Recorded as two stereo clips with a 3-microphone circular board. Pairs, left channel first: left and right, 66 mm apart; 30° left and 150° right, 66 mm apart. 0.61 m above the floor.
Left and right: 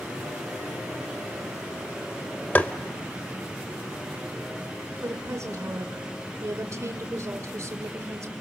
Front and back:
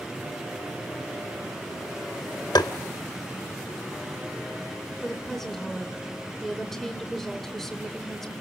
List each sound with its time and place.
2.5 s tapping: 25° left, 0.7 m
5.0 s a woman speaking: 55° right, 1.8 m